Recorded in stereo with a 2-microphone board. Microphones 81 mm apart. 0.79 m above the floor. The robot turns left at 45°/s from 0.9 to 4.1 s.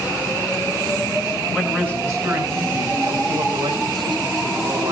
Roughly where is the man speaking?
Ahead.